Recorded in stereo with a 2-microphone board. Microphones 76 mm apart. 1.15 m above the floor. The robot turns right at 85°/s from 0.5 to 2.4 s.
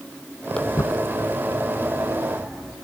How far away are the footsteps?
About 2.5 m.